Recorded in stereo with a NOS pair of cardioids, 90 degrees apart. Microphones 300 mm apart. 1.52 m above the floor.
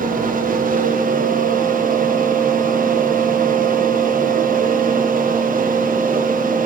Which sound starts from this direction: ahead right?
A fan, at 0.0 s.